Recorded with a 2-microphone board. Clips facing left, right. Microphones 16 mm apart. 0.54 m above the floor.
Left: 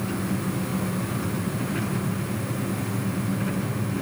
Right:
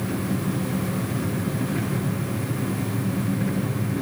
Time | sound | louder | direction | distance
0.0 | an engine running | right 1 dB | 20° left (ahead or behind) | 5 m